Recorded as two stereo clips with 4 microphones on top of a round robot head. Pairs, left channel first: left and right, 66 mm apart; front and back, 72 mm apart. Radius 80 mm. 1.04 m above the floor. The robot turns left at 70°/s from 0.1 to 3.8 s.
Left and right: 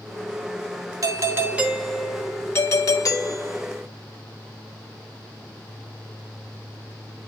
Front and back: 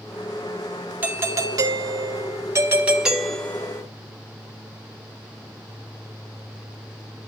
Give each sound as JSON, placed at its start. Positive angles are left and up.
{"t": 1.0, "sound": "a doorbell", "azimuth_deg": -120, "distance_m": 1.7}